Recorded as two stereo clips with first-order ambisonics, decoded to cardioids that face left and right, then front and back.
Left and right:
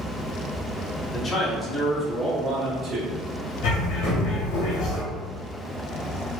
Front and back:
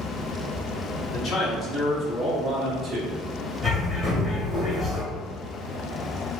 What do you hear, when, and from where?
1.1 s a man speaking: 35° left, 0.9 m; by 3.2 s 125° right, 0.8 m
3.6 s a bird: 90° left, 1.3 m